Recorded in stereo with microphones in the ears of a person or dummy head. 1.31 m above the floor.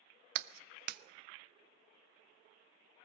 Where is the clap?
55° right (ahead or behind), 0.8 m.